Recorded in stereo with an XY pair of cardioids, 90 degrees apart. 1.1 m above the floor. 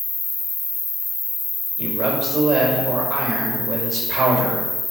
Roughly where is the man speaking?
Ahead right.